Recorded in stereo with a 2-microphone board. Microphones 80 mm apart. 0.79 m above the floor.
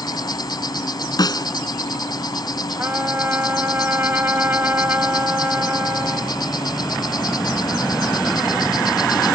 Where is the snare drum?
55° left (ahead or behind).